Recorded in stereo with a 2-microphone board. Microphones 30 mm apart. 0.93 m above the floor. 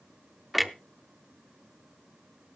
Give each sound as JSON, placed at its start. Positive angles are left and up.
{"t": 0.5, "sound": "a clunk", "side_deg": -5, "distance_m": 0.6}